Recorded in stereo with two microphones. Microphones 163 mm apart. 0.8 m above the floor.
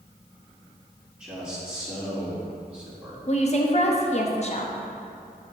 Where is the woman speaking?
45° left (ahead or behind), 0.8 m.